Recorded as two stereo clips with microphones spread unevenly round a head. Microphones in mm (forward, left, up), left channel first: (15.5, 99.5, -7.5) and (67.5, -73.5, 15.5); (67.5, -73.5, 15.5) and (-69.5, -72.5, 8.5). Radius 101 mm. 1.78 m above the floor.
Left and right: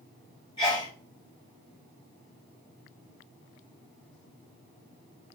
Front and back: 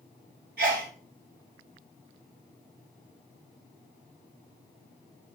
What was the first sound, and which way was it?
A sneeze, 175° left.